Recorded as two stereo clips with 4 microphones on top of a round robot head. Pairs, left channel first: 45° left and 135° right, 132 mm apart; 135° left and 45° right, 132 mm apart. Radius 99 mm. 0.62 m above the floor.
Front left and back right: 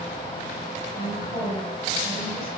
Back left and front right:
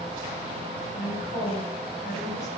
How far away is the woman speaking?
About 3.5 m.